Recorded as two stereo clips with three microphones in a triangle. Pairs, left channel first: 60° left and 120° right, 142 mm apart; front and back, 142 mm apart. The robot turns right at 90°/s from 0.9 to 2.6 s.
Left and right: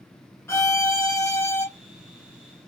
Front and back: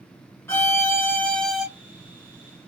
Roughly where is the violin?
Ahead left.